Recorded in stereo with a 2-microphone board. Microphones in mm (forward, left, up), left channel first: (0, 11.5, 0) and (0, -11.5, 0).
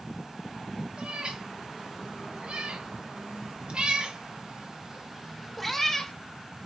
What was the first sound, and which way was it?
A cat meowing, 55° right (ahead or behind).